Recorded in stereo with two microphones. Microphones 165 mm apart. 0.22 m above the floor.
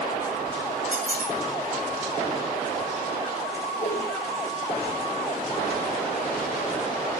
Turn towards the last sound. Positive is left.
turn(degrees=45)  # may be behind; listen again after turning